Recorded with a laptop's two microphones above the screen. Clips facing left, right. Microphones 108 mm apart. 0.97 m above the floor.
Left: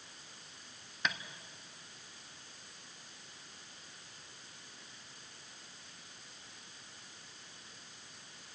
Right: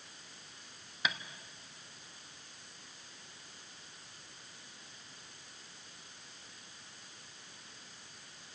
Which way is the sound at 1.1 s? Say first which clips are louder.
Even; 5° right (ahead or behind).